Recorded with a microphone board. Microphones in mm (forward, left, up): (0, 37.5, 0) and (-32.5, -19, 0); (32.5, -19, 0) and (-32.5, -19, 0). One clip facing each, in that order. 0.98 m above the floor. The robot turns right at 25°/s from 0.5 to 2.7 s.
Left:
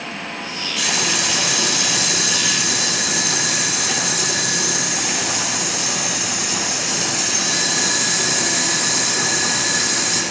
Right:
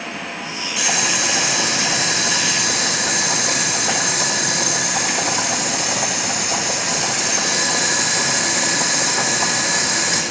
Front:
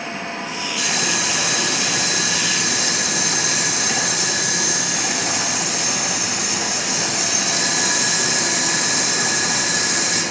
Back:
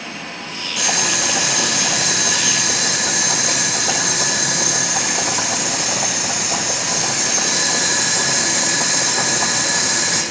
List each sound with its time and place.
0.8 s boiling: 160° left, 7 m; by 10.2 s 150° right, 7 m